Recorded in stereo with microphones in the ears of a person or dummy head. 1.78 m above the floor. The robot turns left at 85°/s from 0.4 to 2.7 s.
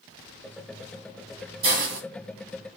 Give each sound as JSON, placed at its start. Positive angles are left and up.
{"t": 1.6, "sound": "a hiss", "azimuth_deg": -35, "distance_m": 0.9}